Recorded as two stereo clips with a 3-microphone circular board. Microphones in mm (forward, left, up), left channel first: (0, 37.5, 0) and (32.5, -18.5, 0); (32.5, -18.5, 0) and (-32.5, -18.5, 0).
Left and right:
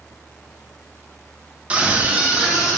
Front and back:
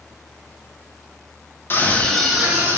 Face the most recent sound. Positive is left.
turn(degrees=-130)